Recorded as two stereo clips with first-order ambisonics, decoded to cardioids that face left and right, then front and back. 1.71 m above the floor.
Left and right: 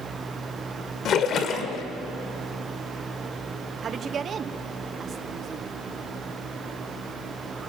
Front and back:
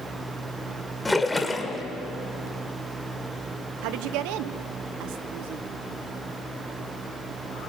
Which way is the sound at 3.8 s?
160° right.